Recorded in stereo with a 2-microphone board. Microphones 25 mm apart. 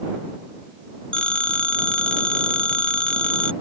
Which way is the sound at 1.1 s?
55° left (ahead or behind).